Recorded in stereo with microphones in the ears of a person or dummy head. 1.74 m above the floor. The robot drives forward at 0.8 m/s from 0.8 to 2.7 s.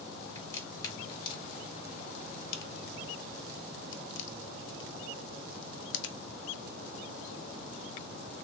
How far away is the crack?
About 1.9 m.